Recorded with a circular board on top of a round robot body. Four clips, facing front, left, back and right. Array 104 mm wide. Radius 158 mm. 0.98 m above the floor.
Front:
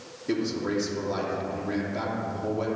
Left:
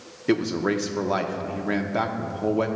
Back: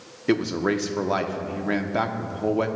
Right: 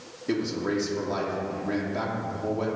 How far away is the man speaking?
About 0.9 m.